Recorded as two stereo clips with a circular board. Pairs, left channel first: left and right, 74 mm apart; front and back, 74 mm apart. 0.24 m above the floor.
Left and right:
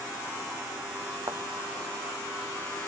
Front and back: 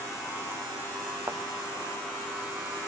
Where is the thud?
130° right.